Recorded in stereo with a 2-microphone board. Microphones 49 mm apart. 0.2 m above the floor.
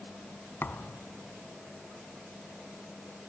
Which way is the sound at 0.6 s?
50° left (ahead or behind).